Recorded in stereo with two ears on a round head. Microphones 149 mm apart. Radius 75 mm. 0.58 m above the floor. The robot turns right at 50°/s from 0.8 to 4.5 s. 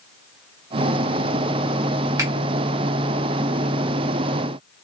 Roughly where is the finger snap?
Centre.